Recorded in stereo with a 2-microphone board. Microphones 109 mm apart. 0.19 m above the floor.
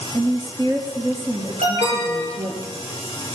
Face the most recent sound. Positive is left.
turn(degrees=-70)  # may be behind; listen again after turning